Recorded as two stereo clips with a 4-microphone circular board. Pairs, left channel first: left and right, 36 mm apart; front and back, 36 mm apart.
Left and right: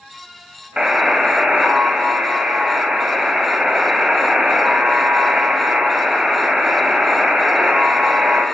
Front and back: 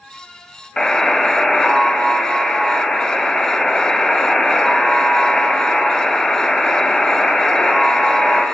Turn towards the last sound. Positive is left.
turn(degrees=-55)